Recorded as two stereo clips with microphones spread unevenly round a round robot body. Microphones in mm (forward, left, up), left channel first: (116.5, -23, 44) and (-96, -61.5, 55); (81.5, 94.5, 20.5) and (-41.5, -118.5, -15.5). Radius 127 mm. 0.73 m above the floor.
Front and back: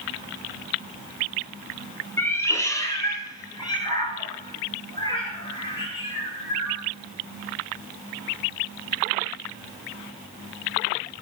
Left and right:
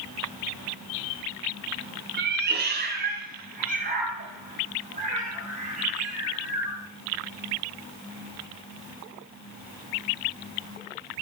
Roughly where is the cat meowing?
Right.